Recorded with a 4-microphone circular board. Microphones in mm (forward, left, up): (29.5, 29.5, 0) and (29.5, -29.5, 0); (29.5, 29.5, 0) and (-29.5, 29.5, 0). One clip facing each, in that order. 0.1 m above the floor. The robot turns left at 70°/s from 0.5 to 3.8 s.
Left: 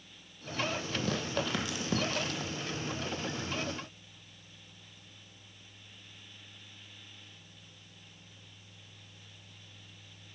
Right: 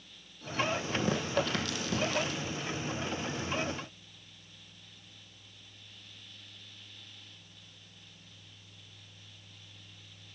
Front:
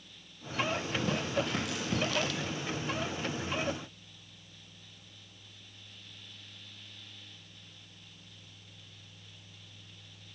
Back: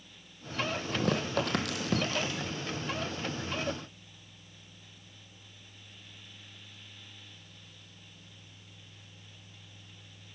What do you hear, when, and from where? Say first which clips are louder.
0.9 s tearing paper: right 3 dB, back 2 dB; 145° right, 1.0 m; by 2.6 s 100° left, 1.0 m